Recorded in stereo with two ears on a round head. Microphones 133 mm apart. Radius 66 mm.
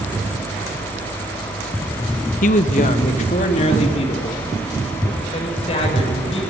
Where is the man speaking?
55° left (ahead or behind), 0.9 m; by 6.4 s 40° left (ahead or behind), 6.5 m.